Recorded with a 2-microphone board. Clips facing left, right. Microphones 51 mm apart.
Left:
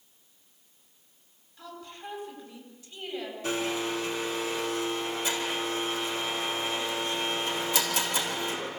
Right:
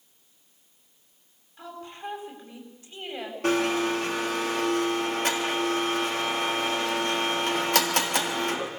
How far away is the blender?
About 3.5 m.